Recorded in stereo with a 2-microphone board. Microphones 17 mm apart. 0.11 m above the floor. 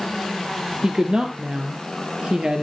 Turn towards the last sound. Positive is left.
turn(degrees=-55)  # may be behind; listen again after turning